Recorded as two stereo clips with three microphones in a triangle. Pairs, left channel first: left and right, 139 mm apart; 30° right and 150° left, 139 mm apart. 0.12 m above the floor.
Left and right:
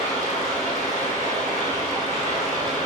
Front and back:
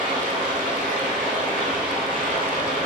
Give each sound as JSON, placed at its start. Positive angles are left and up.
{"t": 0.0, "sound": "running water", "azimuth_deg": 160, "distance_m": 4.5}